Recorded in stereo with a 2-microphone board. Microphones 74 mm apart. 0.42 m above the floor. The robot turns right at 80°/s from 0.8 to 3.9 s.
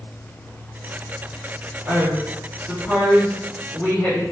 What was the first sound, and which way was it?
A woman speaking, 25° right (ahead or behind).